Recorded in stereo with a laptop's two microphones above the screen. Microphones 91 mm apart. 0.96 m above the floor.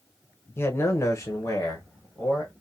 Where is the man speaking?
25° left (ahead or behind), 0.9 m; by 2.5 s 30° left (ahead or behind), 1.3 m.